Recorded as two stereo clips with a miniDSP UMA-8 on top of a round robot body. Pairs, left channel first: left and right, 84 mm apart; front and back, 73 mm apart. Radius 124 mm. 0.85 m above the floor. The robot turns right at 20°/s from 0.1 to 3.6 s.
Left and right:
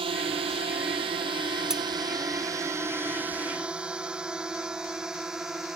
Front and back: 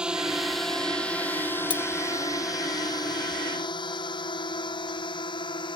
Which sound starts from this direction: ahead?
Cutlery clinking, at 1.7 s.